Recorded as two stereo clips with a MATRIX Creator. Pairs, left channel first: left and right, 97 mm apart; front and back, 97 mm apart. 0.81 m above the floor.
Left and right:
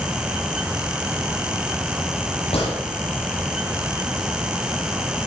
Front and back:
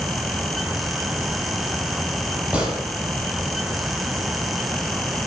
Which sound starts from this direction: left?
A gunshot, at 2.5 s.